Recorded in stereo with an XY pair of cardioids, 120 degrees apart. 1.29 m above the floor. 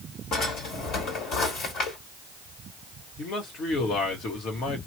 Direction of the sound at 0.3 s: 70° left.